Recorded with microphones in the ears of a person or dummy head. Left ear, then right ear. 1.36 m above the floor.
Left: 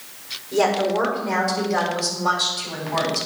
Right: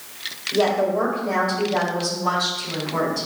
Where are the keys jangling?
No keys jangling in this recording.